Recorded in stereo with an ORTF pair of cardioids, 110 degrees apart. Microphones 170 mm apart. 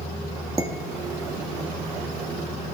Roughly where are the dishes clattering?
Ahead.